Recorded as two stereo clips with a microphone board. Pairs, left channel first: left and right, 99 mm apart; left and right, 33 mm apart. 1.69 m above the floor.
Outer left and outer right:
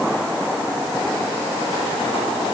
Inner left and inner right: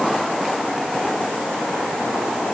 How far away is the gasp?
I don't hear a gasp.